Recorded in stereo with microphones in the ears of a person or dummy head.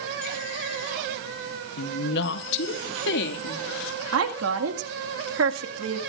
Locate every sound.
1.8 s a woman speaking: 60° left (ahead or behind), 1.0 m; by 4.0 s 75° left (ahead or behind), 3 m
4.1 s a woman speaking: 80° right, 1.9 m